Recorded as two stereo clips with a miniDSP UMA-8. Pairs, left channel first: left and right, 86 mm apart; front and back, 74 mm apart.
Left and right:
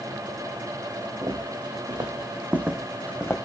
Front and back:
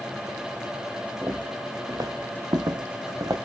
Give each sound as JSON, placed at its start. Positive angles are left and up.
{"t": 1.2, "sound": "footsteps", "azimuth_deg": -110, "distance_m": 1.2}